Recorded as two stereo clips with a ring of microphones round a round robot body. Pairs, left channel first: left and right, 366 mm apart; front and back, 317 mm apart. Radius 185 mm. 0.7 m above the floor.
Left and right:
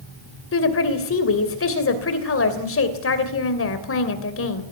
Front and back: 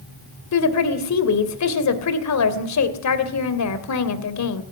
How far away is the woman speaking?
About 2.5 m.